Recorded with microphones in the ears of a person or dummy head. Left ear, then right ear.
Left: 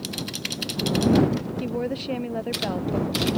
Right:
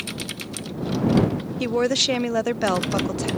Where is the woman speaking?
55° right (ahead or behind).